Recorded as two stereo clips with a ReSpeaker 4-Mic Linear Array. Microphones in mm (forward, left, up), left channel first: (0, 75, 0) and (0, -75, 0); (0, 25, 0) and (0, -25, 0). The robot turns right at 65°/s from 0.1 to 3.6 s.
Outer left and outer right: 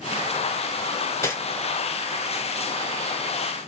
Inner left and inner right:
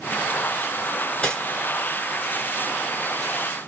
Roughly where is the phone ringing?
No phone ringing in this recording.